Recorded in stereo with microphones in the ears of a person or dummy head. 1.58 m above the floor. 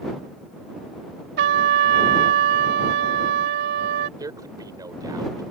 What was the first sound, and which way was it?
A trumpet, 65° right (ahead or behind).